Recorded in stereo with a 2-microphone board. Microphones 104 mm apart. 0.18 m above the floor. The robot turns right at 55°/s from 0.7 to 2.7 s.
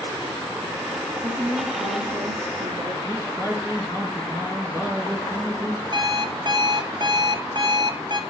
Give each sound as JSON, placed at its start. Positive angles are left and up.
{"t": 1.2, "sound": "a woman speaking", "azimuth_deg": -165, "distance_m": 2.5}
{"t": 3.0, "sound": "a man speaking", "side_deg": -30, "distance_m": 3.0}
{"t": 5.9, "sound": "an alarm clock", "side_deg": -45, "distance_m": 0.8}